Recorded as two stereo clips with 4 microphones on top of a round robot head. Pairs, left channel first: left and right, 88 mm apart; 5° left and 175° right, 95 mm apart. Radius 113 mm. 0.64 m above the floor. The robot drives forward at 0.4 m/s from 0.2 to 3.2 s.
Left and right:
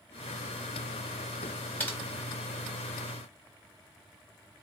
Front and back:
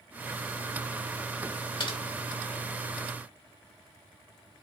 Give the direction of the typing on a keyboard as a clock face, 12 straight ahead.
11 o'clock.